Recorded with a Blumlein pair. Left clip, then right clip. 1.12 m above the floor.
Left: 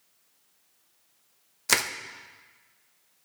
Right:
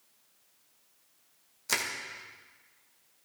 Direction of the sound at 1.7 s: 65° left.